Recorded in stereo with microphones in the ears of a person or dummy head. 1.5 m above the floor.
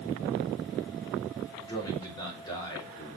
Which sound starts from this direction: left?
A man speaking, at 1.6 s.